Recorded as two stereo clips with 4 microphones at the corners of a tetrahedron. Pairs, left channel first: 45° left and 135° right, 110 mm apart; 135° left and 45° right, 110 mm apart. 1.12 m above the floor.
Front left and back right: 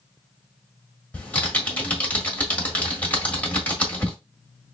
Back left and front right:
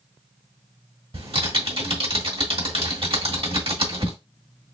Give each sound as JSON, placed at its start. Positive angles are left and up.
{"t": 1.1, "sound": "typing on a keyboard", "azimuth_deg": -30, "distance_m": 1.6}